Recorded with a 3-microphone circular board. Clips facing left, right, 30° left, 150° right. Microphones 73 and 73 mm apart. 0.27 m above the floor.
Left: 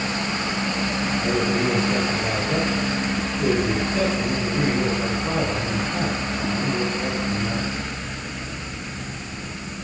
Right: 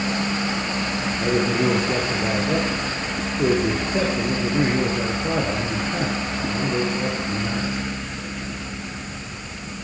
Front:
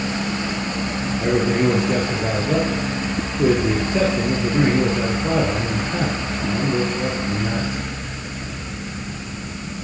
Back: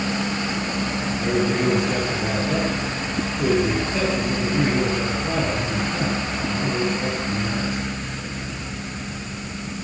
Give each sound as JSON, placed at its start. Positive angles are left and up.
{"t": 1.2, "sound": "a man speaking", "azimuth_deg": -30, "distance_m": 4.0}